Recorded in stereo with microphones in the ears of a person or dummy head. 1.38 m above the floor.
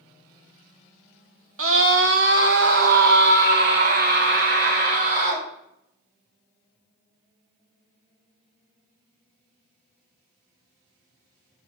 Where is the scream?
65° right (ahead or behind), 1.3 m; by 5.5 s 45° right (ahead or behind), 3 m.